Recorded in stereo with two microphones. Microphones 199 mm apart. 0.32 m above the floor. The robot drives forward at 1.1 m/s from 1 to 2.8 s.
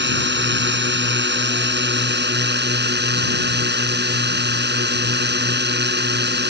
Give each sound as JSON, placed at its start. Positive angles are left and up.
{"t": 0.0, "sound": "a drone", "side_deg": -65}